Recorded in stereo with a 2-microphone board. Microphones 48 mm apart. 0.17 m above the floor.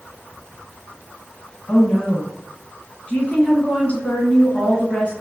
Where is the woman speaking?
30° left (ahead or behind), 1.4 m.